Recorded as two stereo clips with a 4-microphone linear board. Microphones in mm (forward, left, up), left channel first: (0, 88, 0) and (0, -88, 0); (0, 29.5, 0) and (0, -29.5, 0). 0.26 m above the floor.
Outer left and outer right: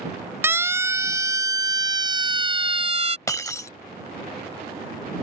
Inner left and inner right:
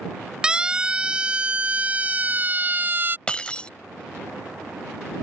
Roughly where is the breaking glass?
Centre.